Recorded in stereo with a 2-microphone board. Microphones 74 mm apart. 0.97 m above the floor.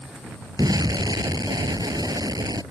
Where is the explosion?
60° right (ahead or behind).